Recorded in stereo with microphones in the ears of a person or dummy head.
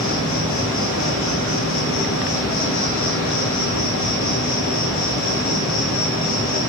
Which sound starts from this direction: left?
An insect, at 0.0 s.